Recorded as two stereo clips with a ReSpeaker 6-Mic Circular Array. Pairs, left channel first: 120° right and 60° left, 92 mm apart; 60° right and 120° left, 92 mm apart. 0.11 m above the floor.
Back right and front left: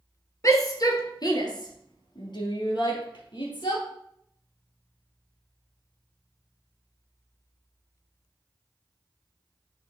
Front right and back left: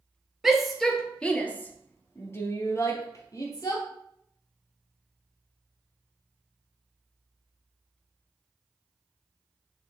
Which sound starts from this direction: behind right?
A shout, at 0.4 s.